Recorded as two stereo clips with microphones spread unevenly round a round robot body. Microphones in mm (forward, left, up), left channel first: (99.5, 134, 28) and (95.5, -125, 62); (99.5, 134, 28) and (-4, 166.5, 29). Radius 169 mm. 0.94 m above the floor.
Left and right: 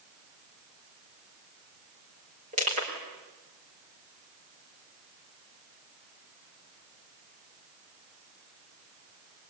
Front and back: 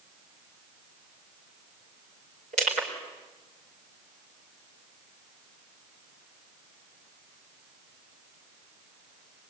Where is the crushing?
160° right, 4 m.